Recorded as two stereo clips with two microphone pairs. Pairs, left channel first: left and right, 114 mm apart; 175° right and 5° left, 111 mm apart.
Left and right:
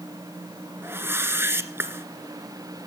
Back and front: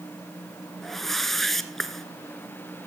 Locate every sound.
0.8 s a whoosh: 95° right, 1.4 m